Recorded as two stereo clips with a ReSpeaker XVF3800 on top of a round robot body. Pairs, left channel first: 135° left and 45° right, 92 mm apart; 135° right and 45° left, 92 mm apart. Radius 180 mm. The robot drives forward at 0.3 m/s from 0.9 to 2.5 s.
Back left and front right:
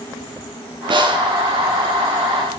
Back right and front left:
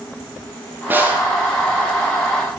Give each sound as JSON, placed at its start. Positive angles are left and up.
{"t": 0.9, "sound": "a snare drum", "azimuth_deg": -25, "distance_m": 7.0}